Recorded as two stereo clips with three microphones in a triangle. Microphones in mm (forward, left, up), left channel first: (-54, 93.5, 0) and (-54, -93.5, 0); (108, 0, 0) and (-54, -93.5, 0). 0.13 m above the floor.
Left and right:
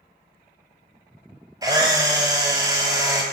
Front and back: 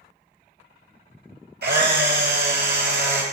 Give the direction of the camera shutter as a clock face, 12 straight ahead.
5 o'clock.